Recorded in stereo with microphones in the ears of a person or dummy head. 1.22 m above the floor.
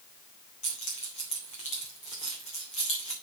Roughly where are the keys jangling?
Left.